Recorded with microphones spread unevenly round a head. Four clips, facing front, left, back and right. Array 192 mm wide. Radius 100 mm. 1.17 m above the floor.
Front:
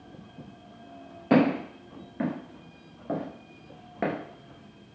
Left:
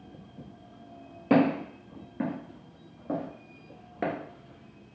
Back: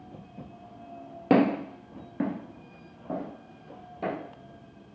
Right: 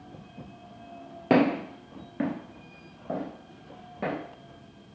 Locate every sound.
1.3 s footsteps: 160° right, 1.6 m; by 4.2 s 30° left, 1.3 m